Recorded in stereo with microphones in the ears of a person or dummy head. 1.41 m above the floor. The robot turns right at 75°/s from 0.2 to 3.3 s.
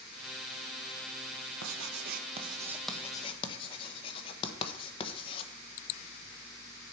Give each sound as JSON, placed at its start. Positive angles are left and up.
{"t": 1.6, "sound": "writing", "side_deg": -85, "distance_m": 1.2}